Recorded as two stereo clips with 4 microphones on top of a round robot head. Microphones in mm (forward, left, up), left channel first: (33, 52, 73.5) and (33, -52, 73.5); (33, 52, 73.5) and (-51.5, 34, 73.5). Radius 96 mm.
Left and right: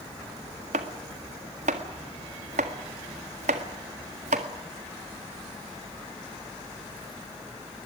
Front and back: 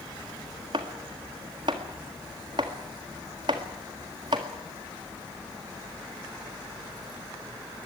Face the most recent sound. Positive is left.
turn(degrees=-115)